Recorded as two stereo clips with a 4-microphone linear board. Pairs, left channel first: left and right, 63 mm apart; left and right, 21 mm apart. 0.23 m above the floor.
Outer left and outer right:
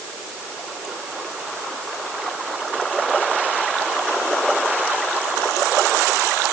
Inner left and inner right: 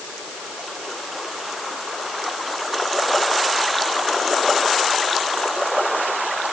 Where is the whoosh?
I don't hear a whoosh.